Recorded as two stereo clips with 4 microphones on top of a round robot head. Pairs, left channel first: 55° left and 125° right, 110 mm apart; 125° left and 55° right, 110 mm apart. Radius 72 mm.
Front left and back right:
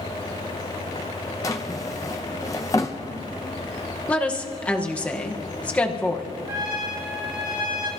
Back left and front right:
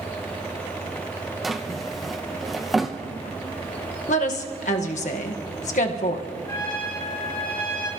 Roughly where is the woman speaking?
Behind left.